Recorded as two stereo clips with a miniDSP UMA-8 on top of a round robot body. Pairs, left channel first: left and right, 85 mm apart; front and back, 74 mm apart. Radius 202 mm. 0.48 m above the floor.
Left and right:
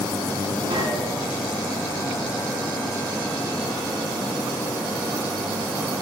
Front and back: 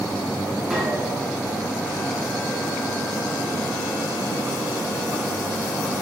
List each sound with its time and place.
0.7 s a gunshot: 95° right, 4.5 m